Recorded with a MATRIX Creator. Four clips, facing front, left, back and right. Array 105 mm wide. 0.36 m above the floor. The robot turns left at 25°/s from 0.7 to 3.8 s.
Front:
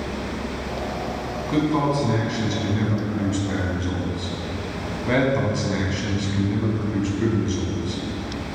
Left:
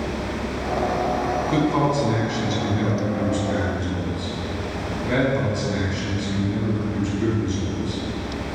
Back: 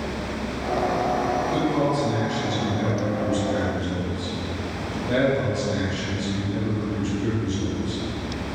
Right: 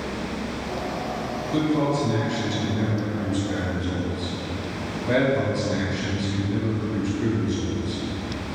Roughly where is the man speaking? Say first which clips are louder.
Even, front 1 dB; left.